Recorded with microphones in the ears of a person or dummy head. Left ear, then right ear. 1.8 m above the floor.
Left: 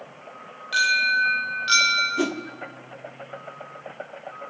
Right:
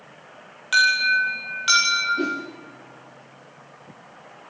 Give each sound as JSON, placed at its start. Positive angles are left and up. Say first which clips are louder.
{"t": 0.7, "sound": "an alarm", "louder": "right 2 dB", "side_deg": -40, "distance_m": 9.5}
{"t": 2.2, "sound": "a whoosh", "louder": "even", "side_deg": 55, "distance_m": 1.1}